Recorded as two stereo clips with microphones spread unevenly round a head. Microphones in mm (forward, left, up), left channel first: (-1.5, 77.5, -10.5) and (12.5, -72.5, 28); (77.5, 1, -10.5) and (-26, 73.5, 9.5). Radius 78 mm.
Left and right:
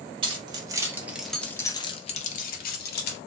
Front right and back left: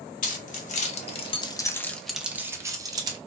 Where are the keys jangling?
25° right, 1.0 m; by 3.2 s 90° left, 1.0 m.